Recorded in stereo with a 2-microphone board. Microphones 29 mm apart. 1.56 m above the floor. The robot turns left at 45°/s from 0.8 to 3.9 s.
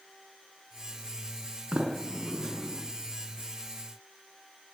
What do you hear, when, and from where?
1.7 s a sliding door: 45° right (ahead or behind), 3.5 m; by 2.8 s centre (ahead or behind), 3.5 m